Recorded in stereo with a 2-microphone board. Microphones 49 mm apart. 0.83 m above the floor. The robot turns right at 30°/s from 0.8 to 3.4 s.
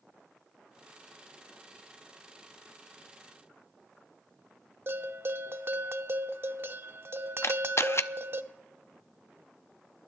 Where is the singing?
No singing in this recording.